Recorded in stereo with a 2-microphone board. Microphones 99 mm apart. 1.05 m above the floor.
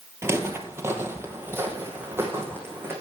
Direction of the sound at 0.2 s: 25° right (ahead or behind).